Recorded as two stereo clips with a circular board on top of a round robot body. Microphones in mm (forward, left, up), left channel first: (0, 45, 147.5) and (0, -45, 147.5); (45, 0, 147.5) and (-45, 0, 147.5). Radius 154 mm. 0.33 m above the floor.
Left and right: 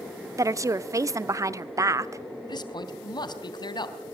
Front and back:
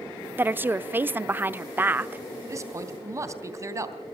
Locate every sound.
0.4 s a woman speaking: 120° right, 1.1 m
2.5 s a man speaking: 125° left, 3.5 m